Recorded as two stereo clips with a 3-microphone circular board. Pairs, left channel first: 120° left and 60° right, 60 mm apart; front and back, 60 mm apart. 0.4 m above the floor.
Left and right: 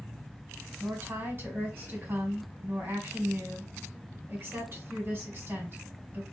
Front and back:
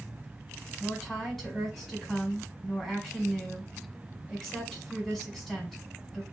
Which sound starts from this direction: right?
A woman speaking, at 0.8 s.